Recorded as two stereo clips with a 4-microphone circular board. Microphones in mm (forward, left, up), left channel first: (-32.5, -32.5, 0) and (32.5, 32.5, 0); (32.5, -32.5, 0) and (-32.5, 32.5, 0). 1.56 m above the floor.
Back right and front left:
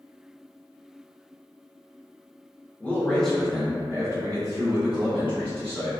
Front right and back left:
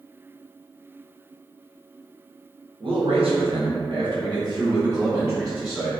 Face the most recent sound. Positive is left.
turn(degrees=65)